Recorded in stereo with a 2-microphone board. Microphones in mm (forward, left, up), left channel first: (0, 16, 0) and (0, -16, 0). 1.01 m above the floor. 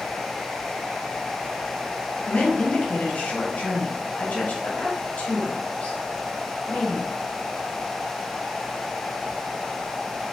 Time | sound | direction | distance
2.3 | a woman speaking | 55° left (ahead or behind) | 0.9 m